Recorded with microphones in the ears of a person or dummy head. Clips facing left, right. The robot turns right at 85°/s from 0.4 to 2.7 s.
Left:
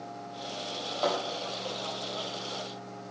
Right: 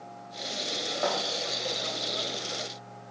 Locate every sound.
1.0 s a thud: 20° right (ahead or behind), 4 m; by 1.2 s 30° right (ahead or behind), 4 m